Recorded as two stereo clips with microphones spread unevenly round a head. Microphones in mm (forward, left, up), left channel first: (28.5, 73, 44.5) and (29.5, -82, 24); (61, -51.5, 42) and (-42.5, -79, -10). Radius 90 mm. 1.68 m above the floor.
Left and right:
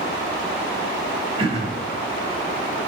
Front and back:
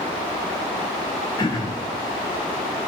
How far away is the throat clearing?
About 3 m.